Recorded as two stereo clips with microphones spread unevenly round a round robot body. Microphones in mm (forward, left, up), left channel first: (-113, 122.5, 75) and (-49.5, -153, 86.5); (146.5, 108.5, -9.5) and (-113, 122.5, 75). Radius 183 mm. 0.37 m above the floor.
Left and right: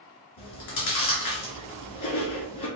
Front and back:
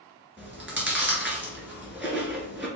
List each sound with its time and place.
0.4 s chewing: 90° left, 1.8 m